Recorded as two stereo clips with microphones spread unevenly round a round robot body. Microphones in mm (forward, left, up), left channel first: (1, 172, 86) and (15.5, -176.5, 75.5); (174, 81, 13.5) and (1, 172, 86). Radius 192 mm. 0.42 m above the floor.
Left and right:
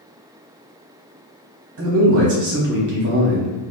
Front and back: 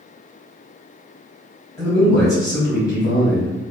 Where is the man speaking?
95° right, 1.2 m.